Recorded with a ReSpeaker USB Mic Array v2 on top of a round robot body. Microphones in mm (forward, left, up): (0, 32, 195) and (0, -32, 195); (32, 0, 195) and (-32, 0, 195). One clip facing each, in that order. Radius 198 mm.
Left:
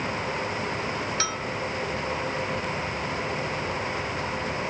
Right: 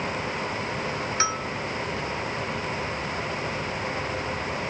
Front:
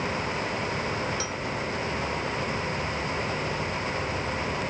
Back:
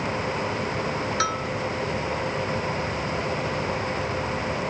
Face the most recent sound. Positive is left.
turn(degrees=-155)